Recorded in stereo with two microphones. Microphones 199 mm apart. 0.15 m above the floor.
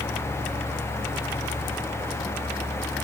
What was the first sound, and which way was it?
Only background noise.